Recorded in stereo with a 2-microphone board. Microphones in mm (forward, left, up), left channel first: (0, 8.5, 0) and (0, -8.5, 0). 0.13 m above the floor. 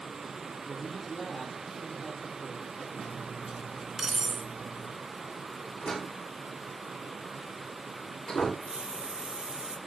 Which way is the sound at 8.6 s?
70° right (ahead or behind).